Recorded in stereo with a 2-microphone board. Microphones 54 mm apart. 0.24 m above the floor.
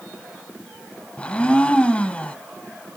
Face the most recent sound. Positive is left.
turn(degrees=25)  # may be behind; listen again after turning